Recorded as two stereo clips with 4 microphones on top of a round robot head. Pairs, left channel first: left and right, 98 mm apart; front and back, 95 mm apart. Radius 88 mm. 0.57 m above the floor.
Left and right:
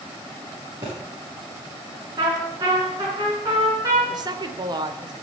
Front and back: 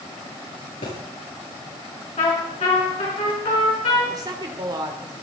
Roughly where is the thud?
Ahead right.